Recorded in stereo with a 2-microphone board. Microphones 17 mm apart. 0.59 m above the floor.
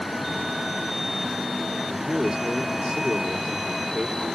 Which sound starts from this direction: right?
A man speaking, at 1.9 s.